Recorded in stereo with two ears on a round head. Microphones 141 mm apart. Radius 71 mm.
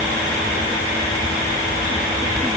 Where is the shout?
No shout in this recording.